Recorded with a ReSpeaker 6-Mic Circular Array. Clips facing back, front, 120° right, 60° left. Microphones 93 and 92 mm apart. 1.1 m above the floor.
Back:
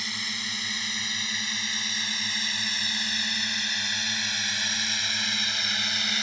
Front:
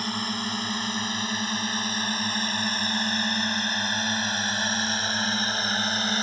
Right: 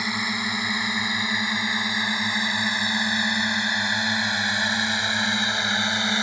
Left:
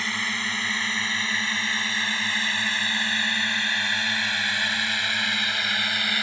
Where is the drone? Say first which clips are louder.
Front 8 dB, right 2 dB; 45° right; by 6.2 s 55° right.